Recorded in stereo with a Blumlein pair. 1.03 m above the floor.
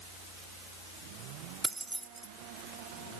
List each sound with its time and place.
1.6 s keys jangling: 10° right, 0.5 m